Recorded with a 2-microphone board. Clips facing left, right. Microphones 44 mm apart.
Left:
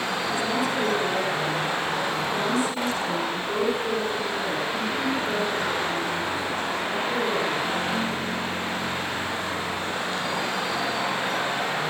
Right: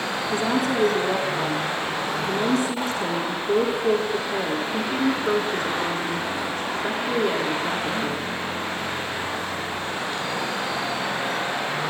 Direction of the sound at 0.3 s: 65° right (ahead or behind).